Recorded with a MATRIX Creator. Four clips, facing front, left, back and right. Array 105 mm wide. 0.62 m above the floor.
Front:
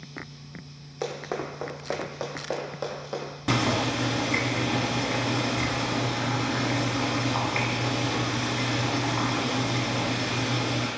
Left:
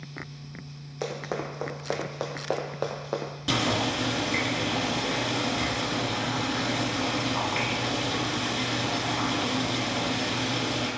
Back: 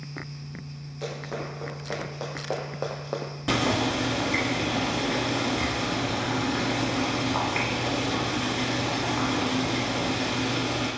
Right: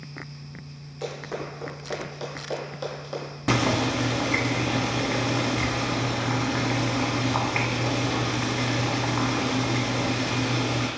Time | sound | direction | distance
1.0 | running footsteps | 45° left | 1.2 m
3.5 | boiling | 85° right | 1.0 m